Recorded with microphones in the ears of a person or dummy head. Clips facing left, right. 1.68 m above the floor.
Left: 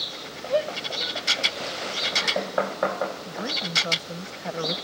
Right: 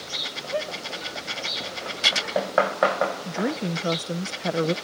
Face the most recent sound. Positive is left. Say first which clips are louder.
# right 6 dB
turn(degrees=-45)  # may be behind; listen again after turning